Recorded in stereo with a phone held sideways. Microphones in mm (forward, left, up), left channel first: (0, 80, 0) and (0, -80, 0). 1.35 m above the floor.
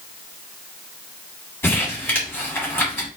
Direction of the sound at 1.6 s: 10° left (ahead or behind).